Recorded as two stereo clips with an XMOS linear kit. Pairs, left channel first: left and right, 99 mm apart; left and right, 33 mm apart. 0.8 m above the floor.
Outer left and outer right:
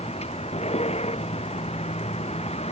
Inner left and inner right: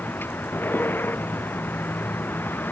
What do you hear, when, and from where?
0.0 s a vehicle: 90° left